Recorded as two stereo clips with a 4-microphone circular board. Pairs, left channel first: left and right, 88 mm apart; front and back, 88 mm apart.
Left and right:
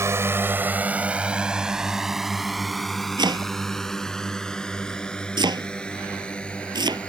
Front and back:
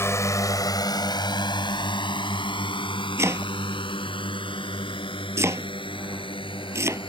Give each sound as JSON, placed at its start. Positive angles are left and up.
{"t": 0.0, "sound": "a drone", "azimuth_deg": -50}
{"t": 3.2, "sound": "chopping", "azimuth_deg": -125}